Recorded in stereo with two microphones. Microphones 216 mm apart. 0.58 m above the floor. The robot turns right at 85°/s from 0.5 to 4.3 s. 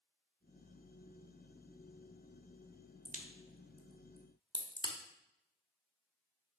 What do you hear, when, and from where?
3.0 s a crack: 35° right (ahead or behind), 0.7 m; by 5.0 s 20° left (ahead or behind), 0.7 m